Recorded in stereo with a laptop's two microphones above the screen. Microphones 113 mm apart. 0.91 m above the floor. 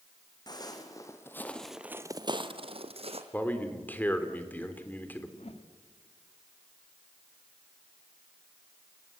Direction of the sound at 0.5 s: 40° left (ahead or behind).